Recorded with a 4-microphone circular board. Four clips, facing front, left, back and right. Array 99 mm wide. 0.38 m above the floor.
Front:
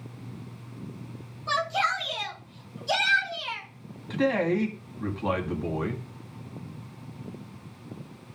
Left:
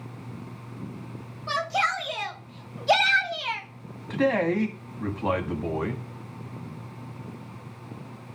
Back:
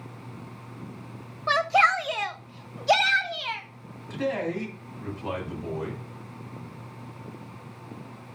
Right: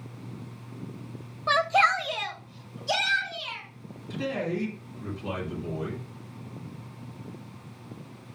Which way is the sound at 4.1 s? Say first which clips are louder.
Left 7 dB, front 4 dB; 70° left.